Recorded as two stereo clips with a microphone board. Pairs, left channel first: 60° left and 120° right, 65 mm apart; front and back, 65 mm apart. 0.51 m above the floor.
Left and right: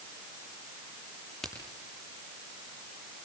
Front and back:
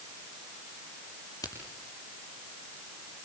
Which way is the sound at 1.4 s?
25° right.